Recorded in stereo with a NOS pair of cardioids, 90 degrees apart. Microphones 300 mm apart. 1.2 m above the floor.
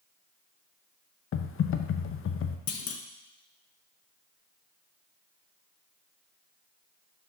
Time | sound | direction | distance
1.3 | typing on a keyboard | 45° left | 0.7 m
2.7 | a clunk | 50° left | 0.8 m